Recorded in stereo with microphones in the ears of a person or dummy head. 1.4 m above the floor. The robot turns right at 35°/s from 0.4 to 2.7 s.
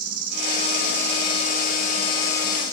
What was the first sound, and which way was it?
An insect, 100° right.